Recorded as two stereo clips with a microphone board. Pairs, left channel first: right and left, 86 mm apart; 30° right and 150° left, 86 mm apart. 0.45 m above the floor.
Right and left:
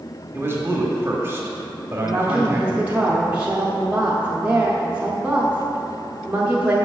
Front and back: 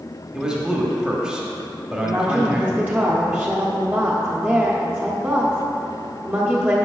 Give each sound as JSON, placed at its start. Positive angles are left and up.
{"t": 0.3, "sound": "a man speaking", "azimuth_deg": 75, "distance_m": 1.0}
{"t": 2.0, "sound": "a woman speaking", "azimuth_deg": 125, "distance_m": 0.7}